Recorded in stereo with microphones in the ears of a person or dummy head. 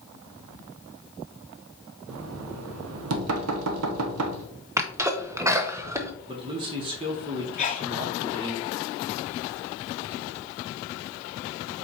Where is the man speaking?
25° right (ahead or behind), 0.7 m.